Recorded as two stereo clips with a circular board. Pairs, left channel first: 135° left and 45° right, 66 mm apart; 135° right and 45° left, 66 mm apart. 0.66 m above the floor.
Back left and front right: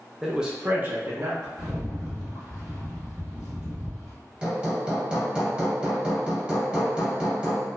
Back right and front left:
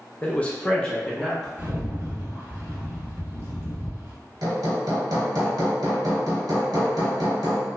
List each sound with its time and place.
0.2 s a man speaking: 130° right, 0.6 m; by 1.5 s 60° right, 0.9 m
1.6 s a rattle: 30° left, 1.5 m
4.4 s hammering: 30° left, 0.9 m